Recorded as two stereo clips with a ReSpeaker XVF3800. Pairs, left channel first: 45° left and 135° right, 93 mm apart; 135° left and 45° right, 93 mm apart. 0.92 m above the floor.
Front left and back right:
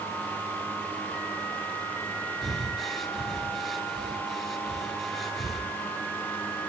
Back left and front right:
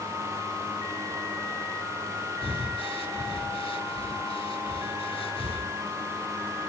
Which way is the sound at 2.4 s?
135° left.